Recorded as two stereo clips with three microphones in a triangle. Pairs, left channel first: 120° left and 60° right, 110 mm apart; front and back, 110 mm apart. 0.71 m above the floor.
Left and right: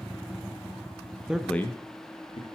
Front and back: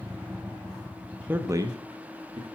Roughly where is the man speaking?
Behind right.